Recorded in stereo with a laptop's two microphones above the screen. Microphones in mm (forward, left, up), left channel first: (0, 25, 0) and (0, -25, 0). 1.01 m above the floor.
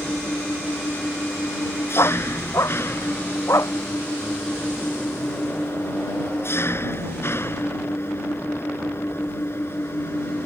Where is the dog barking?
85° left.